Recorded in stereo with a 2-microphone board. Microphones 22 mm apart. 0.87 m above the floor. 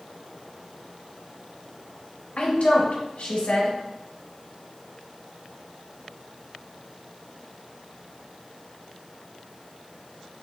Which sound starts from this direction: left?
A woman speaking, at 2.4 s.